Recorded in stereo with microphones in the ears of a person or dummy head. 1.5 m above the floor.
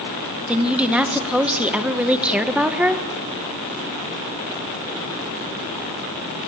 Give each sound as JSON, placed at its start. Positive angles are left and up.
{"t": 0.5, "sound": "a woman speaking", "side_deg": -10, "distance_m": 1.4}